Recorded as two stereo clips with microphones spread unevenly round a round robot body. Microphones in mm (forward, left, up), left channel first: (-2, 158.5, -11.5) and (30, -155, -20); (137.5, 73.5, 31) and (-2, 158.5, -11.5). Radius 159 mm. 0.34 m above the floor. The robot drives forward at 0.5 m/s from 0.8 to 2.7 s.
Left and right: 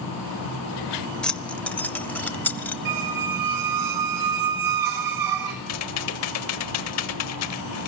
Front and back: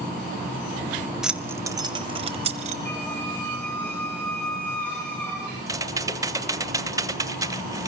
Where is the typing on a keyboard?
110° left, 1.2 m.